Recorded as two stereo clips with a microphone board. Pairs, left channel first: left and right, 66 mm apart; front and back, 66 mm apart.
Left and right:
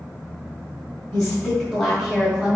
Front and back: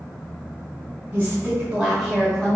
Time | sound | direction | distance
1.1 | a woman speaking | 155° left | 1.1 m